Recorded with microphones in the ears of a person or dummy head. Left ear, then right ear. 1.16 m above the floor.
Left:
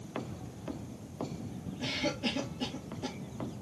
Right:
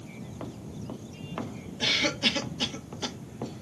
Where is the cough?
55° right (ahead or behind), 1.4 m.